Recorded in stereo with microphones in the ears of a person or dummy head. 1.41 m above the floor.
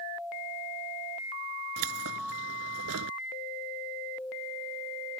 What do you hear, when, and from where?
1.8 s keys jangling: 75° right (ahead or behind)